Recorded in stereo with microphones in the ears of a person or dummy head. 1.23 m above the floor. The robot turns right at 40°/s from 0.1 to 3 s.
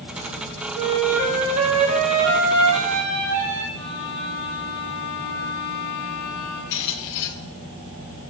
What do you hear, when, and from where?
0.8 s a flute: 175° left, 4 m; by 3.6 s 95° right, 4 m
3.7 s a violin: 20° left (ahead or behind), 4.5 m
6.7 s a squeak: 55° left (ahead or behind), 0.8 m